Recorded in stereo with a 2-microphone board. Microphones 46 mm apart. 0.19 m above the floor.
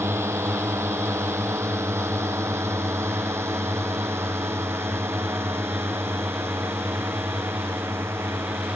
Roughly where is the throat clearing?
No throat clearing in this recording.